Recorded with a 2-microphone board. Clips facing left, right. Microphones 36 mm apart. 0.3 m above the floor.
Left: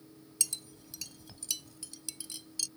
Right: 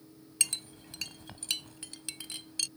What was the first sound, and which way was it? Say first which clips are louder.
A clink: right 5 dB; 50° right (ahead or behind).